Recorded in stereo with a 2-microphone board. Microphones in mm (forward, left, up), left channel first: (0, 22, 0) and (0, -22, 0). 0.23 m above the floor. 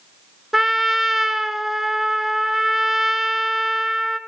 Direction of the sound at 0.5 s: 5° right (ahead or behind).